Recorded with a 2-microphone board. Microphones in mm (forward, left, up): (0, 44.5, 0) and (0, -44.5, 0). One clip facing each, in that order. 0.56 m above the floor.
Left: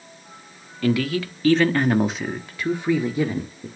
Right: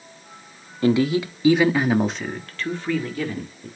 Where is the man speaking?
25° right (ahead or behind), 1.2 m; by 3.7 s 25° left (ahead or behind), 1.7 m.